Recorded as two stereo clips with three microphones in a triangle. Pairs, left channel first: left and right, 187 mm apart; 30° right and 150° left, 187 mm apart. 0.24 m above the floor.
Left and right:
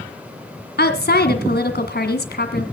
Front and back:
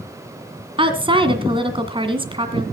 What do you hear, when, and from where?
0.8 s a woman speaking: 90° left, 2 m